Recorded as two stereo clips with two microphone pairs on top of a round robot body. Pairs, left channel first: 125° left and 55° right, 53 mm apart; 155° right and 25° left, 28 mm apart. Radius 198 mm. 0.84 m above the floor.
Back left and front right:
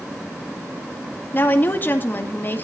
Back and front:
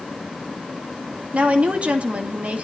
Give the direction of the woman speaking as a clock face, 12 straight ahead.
10 o'clock.